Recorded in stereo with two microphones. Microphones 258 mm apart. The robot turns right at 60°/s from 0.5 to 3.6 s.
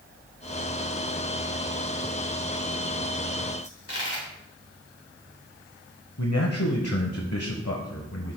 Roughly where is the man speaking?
Left.